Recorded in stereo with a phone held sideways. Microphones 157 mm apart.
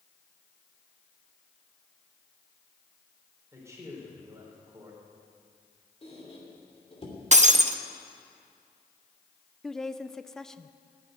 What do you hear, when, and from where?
3.5 s a man speaking: 20° right (ahead or behind), 4 m
6.0 s a squeak: 40° left (ahead or behind), 3 m
7.3 s breaking glass: 50° right (ahead or behind), 0.7 m
9.6 s a woman speaking: 5° left (ahead or behind), 0.5 m